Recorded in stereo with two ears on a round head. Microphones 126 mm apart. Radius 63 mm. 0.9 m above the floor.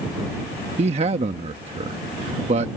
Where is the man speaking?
45° right (ahead or behind).